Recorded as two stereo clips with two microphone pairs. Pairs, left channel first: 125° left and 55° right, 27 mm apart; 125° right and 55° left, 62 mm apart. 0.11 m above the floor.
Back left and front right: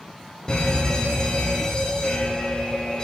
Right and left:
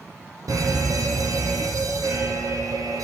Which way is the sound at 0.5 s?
70° left.